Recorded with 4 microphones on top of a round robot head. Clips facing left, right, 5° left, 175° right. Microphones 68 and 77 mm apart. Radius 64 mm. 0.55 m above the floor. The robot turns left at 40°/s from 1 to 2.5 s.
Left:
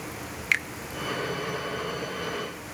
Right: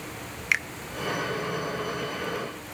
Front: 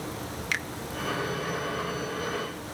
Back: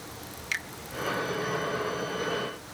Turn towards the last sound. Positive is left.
turn(degrees=-70)